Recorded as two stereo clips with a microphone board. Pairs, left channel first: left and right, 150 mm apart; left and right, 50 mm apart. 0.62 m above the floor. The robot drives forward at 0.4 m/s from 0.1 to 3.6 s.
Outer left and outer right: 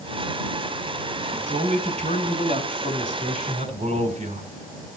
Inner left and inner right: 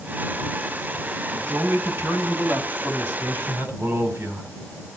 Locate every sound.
1.3 s a man speaking: 55° right (ahead or behind), 3.5 m; by 5.0 s 45° right (ahead or behind), 4.5 m